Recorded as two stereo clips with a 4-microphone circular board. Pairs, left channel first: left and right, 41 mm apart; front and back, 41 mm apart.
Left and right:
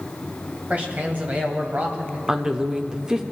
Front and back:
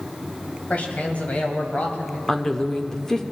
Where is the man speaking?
50° right, 1.9 m.